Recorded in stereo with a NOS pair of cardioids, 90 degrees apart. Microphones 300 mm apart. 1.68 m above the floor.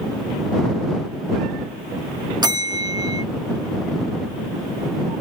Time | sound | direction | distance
2.4 | a bell | 15° right | ?